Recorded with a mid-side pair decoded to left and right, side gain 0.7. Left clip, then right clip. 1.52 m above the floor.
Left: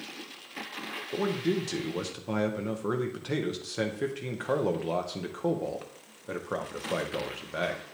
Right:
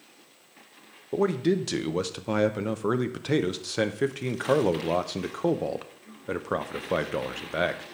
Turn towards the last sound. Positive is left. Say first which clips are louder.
# right 5 dB
turn(degrees=-25)